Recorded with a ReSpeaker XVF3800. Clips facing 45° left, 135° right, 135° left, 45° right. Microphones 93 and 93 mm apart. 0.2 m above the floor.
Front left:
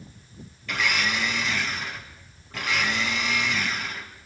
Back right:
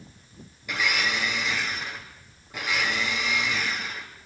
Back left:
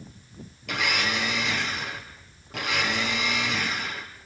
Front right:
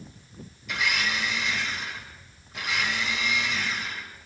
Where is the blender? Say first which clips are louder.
Front left 1 dB, back left 1 dB; 150° left, 4 m.